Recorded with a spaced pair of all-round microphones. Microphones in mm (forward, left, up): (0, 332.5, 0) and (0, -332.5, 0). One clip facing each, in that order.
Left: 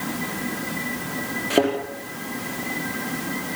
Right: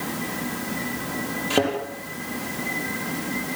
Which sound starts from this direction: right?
A thud, at 1.5 s.